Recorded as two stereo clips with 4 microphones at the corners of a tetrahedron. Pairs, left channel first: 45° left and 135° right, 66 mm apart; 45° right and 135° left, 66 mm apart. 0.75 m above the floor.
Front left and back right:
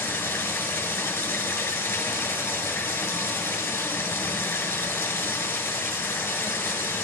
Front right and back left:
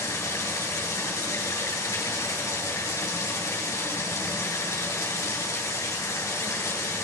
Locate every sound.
0.0 s running water: straight ahead, 2.5 m